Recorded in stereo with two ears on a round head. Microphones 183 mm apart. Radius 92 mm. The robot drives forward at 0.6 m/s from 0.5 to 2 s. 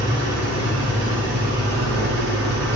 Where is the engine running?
60° right (ahead or behind), 5 m; by 2.8 s 55° right (ahead or behind), 5.5 m.